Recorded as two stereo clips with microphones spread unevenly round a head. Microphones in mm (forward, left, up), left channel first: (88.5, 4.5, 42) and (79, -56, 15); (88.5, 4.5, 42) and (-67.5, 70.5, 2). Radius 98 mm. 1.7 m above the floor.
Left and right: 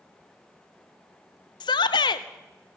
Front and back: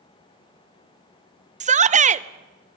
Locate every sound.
1.6 s a shout: 110° left, 0.8 m